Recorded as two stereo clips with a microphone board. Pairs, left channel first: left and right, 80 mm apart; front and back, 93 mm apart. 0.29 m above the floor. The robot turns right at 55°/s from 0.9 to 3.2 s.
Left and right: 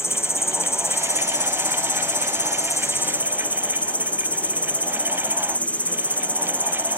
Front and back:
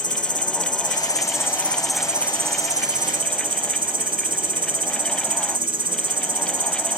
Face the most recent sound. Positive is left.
turn(degrees=160)